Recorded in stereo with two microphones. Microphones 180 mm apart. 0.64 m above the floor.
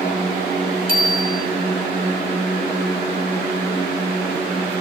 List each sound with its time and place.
0.9 s a bicycle bell: 55° left (ahead or behind), 4.5 m